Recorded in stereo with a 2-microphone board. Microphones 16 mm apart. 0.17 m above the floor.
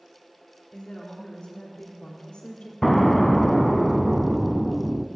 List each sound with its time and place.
0.7 s a woman speaking: 60° left (ahead or behind), 5 m; by 2.7 s 75° left (ahead or behind), 4.5 m
2.8 s an explosion: 15° left (ahead or behind), 0.6 m